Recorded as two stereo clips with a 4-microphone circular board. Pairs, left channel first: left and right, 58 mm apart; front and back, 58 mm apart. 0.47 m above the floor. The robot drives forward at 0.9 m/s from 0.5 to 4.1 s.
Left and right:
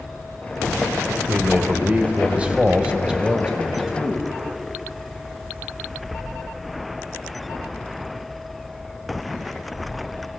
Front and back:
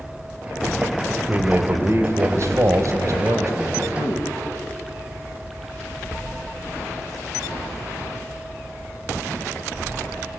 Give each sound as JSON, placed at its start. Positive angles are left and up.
{"t": 1.3, "sound": "a man speaking", "azimuth_deg": -140, "distance_m": 1.9}